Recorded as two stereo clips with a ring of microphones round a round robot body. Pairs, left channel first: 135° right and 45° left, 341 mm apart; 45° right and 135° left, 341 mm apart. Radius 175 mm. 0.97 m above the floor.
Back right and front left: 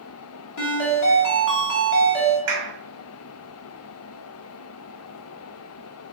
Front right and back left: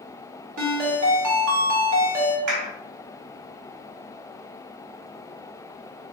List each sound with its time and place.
0.6 s a ringtone: straight behind, 1.3 m
2.5 s a clap: 95° left, 1.7 m